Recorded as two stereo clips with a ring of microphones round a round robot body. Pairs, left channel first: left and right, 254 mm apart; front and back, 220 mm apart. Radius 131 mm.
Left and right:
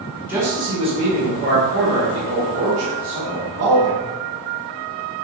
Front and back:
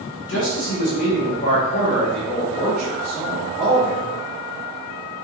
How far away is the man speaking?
About 1.5 m.